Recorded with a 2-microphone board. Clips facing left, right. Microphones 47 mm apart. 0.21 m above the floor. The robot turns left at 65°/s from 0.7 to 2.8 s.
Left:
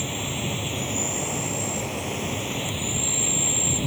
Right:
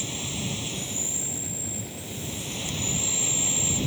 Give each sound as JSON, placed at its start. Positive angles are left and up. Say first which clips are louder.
{"t": 0.0, "sound": "an insect", "louder": "left 4 dB", "azimuth_deg": 155}